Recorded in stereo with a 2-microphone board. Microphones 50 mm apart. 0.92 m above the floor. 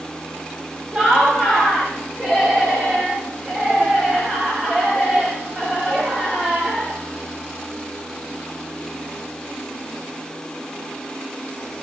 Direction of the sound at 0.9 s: 10° right (ahead or behind).